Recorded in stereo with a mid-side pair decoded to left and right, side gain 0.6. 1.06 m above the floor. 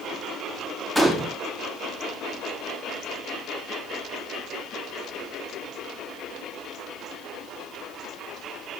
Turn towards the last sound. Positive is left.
turn(degrees=-5)